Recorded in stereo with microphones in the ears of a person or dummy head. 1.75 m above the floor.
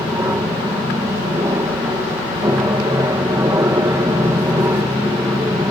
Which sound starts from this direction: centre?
An aircraft, at 0.0 s.